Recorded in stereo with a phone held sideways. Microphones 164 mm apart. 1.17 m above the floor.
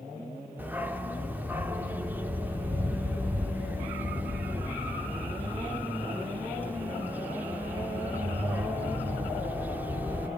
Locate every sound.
0.6 s a dog barking: 10° right (ahead or behind), 1.0 m